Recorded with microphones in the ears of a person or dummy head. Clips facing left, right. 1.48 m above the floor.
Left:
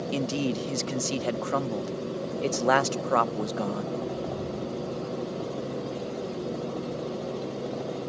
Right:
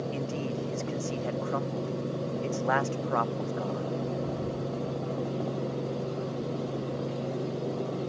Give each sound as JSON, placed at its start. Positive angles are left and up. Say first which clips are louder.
{"t": 0.1, "sound": "a man speaking", "louder": "left 5 dB", "side_deg": 50}